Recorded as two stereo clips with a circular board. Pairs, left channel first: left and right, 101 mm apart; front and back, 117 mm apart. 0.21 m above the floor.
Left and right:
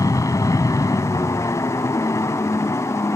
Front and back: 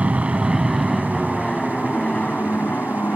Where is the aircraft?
105° left; by 3.1 s 60° left.